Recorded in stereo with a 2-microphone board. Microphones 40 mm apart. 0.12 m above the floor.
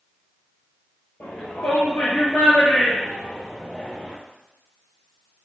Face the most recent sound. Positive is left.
turn(degrees=20)  # may be behind; listen again after turning